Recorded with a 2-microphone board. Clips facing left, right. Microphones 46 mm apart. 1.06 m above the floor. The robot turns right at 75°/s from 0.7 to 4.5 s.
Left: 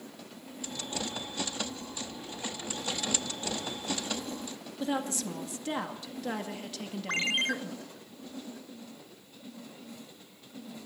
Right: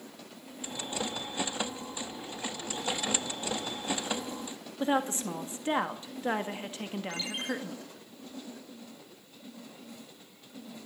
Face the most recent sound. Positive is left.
turn(degrees=65)  # may be behind; listen again after turning